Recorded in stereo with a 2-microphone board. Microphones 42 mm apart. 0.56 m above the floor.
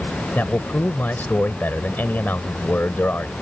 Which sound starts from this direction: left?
A man speaking, at 0.3 s.